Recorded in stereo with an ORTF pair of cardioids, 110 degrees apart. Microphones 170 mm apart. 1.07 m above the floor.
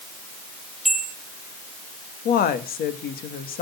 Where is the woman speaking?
65° left, 1.7 m.